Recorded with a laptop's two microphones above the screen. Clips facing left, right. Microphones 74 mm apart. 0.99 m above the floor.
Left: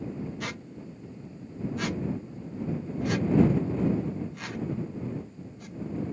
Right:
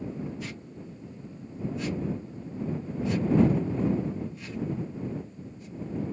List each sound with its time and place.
0.4 s a squeak: 70° left (ahead or behind)